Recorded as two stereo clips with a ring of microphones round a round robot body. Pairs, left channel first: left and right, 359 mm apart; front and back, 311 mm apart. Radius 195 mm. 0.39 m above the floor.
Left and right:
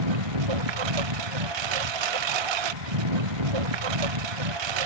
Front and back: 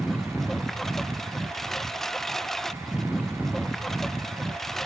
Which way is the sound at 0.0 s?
90° right.